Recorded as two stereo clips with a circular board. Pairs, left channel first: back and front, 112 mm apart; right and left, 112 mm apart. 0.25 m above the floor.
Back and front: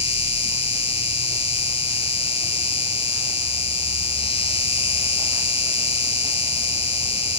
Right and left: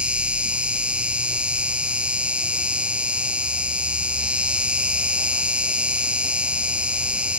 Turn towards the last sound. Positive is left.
turn(degrees=170)